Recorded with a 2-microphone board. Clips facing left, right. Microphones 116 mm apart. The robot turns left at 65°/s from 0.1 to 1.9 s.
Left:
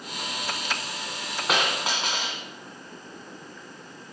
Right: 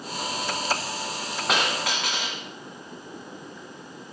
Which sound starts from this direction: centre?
A dropped coin, at 1.5 s.